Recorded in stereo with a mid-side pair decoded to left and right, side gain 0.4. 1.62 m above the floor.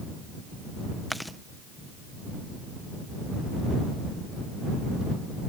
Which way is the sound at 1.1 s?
Straight ahead.